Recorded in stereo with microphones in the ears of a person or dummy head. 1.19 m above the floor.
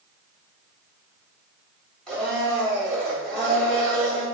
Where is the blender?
5° left (ahead or behind), 1.4 m.